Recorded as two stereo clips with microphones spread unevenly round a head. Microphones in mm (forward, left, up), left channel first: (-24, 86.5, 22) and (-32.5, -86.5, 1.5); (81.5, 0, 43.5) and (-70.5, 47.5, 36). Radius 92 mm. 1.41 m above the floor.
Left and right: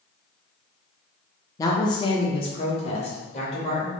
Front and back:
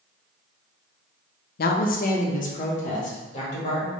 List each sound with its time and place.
1.6 s a woman speaking: 10° left, 0.5 m; by 3.9 s 30° left, 1.8 m